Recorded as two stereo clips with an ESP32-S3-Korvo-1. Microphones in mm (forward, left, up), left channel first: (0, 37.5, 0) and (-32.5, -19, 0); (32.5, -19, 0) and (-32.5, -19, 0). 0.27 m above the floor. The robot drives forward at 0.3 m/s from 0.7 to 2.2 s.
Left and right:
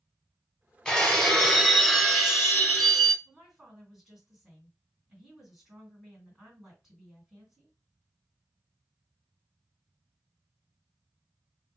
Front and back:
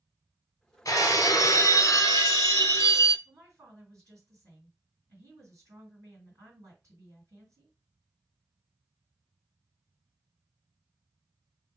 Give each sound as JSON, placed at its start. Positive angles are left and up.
{"t": 0.8, "sound": "breaking glass", "azimuth_deg": -20, "distance_m": 0.9}
{"t": 3.2, "sound": "a woman speaking", "azimuth_deg": 155, "distance_m": 2.0}